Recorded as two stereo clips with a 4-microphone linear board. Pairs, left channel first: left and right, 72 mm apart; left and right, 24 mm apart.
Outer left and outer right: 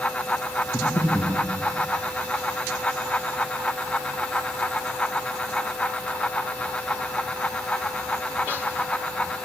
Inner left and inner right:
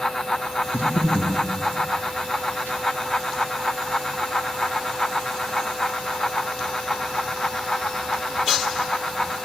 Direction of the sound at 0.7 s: 30° left (ahead or behind).